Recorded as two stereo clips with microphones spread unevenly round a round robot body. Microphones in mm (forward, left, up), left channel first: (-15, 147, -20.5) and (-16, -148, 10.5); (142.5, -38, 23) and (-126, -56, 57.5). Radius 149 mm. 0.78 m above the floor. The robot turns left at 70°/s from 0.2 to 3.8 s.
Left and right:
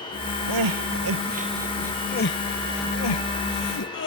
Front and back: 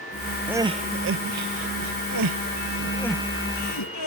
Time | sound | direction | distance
0.5 | crying | 90° right | ?